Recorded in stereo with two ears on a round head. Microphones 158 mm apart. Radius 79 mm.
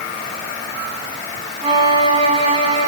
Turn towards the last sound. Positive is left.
turn(degrees=-35)  # may be behind; listen again after turning